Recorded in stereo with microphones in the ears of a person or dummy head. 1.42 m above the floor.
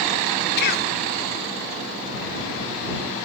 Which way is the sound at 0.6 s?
50° left (ahead or behind).